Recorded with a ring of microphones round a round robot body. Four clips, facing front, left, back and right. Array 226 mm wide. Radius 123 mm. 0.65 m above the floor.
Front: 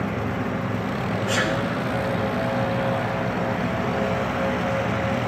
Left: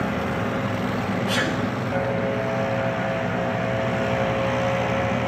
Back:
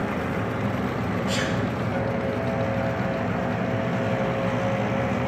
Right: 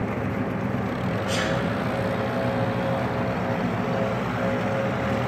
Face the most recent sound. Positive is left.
turn(degrees=40)